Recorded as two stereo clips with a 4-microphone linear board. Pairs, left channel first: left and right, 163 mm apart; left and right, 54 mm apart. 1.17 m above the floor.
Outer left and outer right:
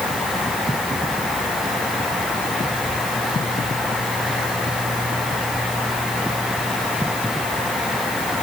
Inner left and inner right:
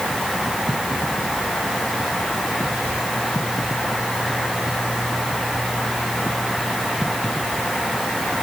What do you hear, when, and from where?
Only background noise.